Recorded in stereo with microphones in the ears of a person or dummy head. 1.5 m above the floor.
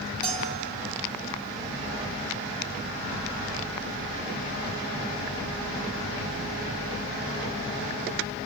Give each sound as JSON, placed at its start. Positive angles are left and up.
{"t": 0.2, "sound": "a bell", "side_deg": 5, "distance_m": 4.0}